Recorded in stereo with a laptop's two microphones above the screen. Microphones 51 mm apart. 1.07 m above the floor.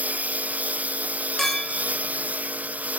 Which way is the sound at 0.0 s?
30° right (ahead or behind).